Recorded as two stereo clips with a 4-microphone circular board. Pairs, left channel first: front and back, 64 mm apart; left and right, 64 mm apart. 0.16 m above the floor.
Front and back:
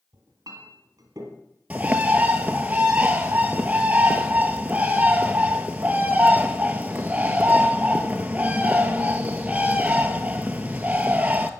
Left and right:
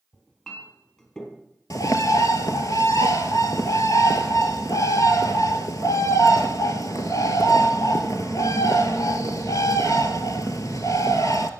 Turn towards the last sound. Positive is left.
turn(degrees=115)